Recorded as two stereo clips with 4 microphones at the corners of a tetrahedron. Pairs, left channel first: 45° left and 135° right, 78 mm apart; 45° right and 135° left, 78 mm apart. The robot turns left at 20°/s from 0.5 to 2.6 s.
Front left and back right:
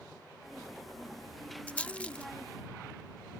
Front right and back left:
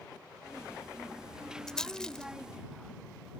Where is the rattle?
20° left; by 2.2 s 10° left.